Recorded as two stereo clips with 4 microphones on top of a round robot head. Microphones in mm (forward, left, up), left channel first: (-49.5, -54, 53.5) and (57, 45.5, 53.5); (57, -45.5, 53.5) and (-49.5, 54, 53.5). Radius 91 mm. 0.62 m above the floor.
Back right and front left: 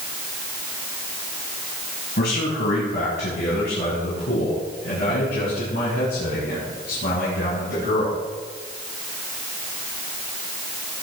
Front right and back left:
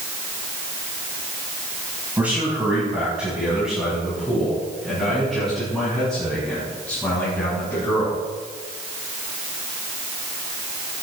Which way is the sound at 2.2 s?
145° right.